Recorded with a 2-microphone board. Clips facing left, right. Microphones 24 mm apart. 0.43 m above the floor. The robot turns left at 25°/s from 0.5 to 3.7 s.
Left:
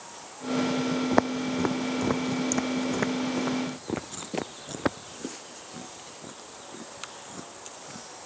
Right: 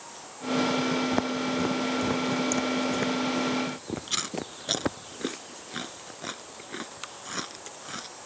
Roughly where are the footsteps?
Left.